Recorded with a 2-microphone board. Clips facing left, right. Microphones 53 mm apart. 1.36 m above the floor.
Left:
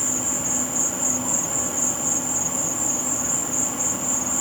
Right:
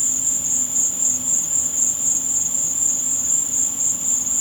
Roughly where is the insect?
Left.